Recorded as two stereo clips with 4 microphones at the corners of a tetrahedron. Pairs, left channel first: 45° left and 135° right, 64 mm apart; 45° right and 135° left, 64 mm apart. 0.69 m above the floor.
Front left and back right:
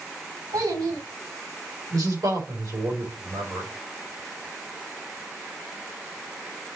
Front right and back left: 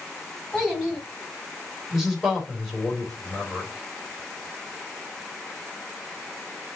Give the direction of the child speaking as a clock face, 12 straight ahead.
5 o'clock.